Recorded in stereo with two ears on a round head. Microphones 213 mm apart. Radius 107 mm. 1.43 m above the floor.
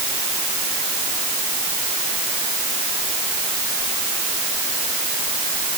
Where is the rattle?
No rattle in this recording.